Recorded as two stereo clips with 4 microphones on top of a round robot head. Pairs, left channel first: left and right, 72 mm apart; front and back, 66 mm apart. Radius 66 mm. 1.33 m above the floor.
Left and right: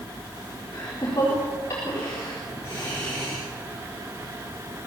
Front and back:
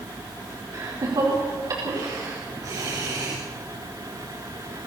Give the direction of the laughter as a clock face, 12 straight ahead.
7 o'clock.